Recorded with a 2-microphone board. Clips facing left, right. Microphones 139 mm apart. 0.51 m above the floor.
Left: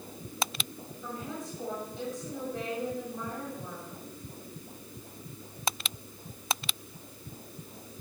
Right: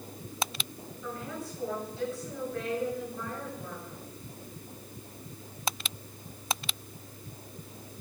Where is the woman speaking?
20° left (ahead or behind), 9.5 m.